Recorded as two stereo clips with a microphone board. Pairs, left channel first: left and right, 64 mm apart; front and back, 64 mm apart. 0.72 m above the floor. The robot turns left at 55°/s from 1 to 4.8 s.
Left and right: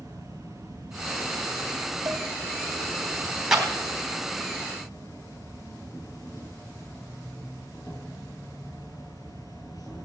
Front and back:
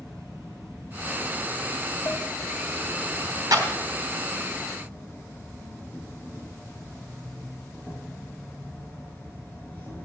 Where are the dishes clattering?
55° right, 2.5 m; by 2.2 s 65° right, 2.5 m.